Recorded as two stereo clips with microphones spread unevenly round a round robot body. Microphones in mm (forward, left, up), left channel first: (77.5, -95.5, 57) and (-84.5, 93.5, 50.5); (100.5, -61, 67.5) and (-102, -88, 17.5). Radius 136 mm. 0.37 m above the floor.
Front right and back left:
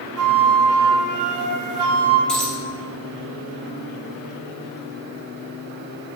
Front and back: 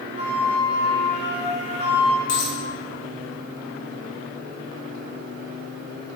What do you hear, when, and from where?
0.2 s a flute: 115° left, 0.9 m
2.3 s a dropped coin: 40° left, 2 m